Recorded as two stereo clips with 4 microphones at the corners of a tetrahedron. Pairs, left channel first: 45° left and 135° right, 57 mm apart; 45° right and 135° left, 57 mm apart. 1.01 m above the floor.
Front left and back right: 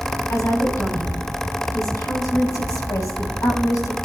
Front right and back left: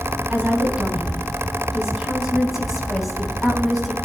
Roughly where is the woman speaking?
Left.